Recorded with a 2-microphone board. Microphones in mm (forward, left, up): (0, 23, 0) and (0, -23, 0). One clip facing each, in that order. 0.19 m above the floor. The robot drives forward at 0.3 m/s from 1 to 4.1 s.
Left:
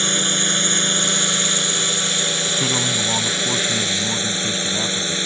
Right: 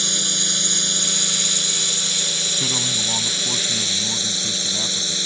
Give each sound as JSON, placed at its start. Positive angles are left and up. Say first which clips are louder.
{"t": 0.0, "sound": "a drone", "louder": "left 5 dB", "side_deg": 30}
{"t": 2.6, "sound": "a man speaking", "louder": "left 3 dB", "side_deg": 20}